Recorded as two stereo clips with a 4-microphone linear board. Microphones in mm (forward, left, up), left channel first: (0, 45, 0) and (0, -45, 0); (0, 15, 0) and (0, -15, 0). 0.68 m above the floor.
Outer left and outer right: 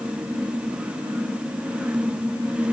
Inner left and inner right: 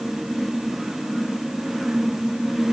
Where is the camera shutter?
No camera shutter in this recording.